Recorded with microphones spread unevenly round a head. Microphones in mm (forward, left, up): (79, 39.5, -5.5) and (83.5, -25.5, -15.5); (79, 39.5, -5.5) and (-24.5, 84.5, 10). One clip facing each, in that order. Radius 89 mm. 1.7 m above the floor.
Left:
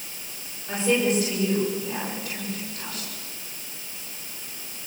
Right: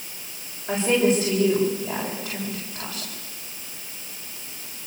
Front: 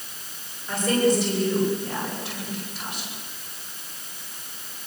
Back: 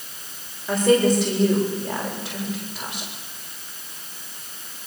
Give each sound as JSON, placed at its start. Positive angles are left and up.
{"t": 0.7, "sound": "a woman speaking", "azimuth_deg": -165, "distance_m": 8.0}